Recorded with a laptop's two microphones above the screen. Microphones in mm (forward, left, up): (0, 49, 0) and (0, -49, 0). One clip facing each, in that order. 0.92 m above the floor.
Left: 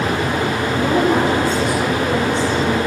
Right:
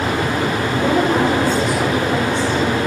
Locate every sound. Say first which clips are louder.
0.8 s a woman speaking: even; 15° left (ahead or behind), 2.5 m